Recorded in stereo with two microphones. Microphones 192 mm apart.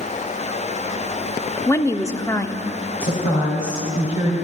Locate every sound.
1.7 s a woman speaking: 15° left (ahead or behind), 0.8 m
3.0 s a woman speaking: 50° left (ahead or behind), 3 m